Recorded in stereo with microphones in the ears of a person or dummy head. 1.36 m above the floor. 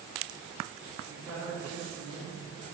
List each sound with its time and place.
1.1 s a woman speaking: centre (ahead or behind), 2.5 m; by 2.6 s 40° right (ahead or behind), 2 m